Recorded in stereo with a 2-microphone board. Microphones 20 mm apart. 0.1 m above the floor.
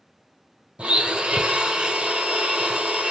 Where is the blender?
65° right (ahead or behind), 0.9 m.